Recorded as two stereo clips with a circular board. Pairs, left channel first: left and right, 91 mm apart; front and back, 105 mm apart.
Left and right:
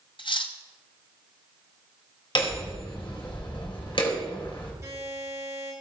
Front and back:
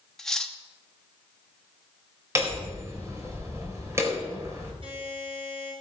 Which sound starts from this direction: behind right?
A buzzer, at 4.8 s.